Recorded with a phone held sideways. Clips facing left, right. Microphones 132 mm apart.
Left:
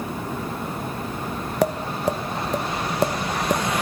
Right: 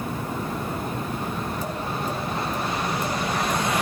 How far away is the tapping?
About 0.8 m.